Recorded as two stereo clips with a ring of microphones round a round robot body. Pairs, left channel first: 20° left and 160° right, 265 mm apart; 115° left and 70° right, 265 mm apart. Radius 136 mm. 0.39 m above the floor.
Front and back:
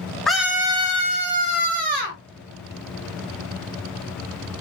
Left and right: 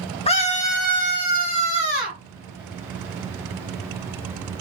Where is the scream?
110° left, 0.8 m; by 2.2 s 165° left, 1.5 m.